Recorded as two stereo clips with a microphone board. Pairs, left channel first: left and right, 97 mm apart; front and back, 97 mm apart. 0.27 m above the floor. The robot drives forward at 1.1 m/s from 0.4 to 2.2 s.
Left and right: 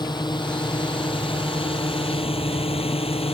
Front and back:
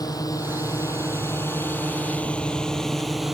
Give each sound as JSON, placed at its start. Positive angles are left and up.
{"t": 0.0, "sound": "a drone", "azimuth_deg": 50}